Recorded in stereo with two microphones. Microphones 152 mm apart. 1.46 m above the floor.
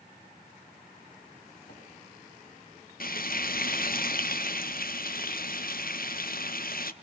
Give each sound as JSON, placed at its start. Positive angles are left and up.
{"t": 1.7, "sound": "a microwave", "side_deg": 75, "distance_m": 7.5}
{"t": 3.0, "sound": "frying", "side_deg": 65, "distance_m": 0.9}